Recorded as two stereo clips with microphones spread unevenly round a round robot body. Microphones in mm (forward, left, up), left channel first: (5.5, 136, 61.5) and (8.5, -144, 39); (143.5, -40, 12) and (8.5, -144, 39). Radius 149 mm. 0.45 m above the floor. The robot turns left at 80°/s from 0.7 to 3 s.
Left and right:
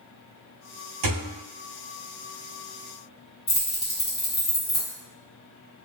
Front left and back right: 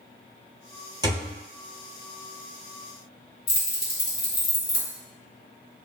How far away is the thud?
About 0.9 m.